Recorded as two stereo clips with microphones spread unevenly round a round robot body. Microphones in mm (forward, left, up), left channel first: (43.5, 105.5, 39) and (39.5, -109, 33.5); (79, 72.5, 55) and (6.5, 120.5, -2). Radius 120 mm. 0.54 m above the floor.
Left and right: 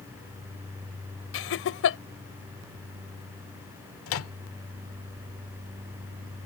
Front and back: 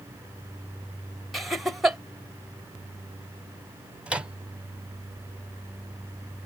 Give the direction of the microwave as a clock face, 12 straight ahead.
9 o'clock.